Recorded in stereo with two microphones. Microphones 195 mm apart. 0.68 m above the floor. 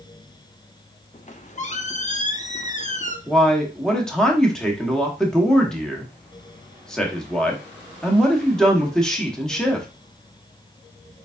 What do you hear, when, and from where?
1.1 s a squeak: 40° left (ahead or behind), 0.5 m
3.3 s a man speaking: 5° left (ahead or behind), 1.0 m